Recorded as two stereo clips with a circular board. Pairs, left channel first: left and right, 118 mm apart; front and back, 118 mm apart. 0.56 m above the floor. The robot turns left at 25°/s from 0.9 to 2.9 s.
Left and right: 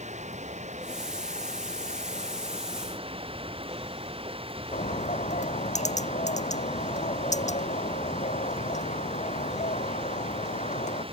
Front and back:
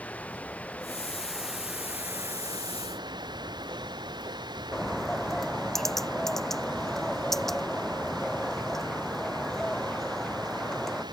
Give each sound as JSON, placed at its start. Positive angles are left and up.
{"t": 0.0, "sound": "running water", "azimuth_deg": -80}
{"t": 4.7, "sound": "a bird", "azimuth_deg": 85}